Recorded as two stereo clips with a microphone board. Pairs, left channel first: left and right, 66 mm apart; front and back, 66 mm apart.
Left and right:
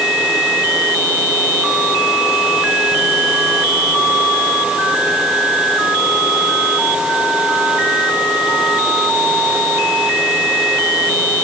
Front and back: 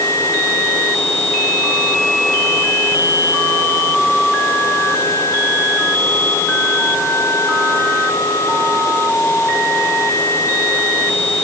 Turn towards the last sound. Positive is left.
No sound to turn to.